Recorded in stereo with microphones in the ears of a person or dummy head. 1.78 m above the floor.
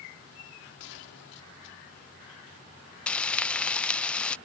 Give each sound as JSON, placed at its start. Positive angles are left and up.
{"t": 0.8, "sound": "a gunshot", "side_deg": 75}
{"t": 3.1, "sound": "frying", "side_deg": 5}